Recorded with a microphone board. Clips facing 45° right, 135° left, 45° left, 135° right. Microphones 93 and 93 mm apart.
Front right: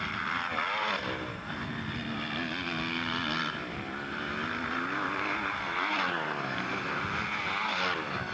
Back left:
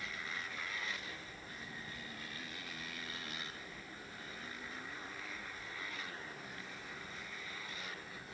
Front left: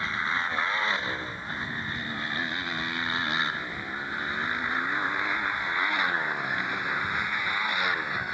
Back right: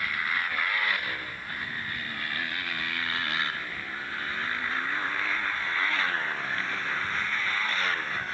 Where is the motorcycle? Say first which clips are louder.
Front right 12 dB, front left 2 dB; 20° right; by 8.3 s 30° right.